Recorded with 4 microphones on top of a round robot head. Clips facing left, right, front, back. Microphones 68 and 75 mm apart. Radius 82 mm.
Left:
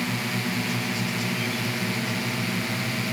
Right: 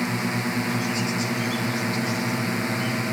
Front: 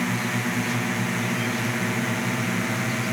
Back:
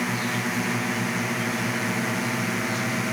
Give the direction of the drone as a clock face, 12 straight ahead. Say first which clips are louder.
Right 3 dB, front 1 dB; 3 o'clock.